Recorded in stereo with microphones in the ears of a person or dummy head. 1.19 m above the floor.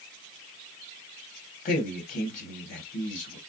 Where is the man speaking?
40° left (ahead or behind), 1.3 m.